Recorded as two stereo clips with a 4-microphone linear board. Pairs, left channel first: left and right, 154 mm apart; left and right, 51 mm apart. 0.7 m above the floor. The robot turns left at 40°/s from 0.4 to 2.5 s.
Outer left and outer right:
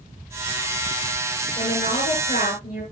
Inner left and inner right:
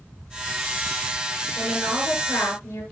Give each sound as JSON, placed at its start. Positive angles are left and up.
{"t": 1.6, "sound": "a woman speaking", "azimuth_deg": 140, "distance_m": 9.0}